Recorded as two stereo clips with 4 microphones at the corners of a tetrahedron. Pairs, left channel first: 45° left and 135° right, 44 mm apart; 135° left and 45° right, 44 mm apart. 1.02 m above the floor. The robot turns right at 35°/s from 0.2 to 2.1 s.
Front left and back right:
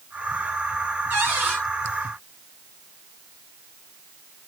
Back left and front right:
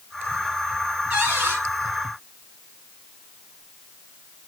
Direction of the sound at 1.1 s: 110° right.